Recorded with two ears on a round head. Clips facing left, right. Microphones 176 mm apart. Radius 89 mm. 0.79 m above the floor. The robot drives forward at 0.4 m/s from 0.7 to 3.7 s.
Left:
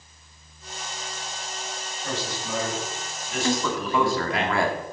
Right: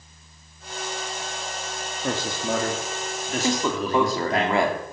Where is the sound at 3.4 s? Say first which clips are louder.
Right 1 dB; 15° right (ahead or behind), 2 m.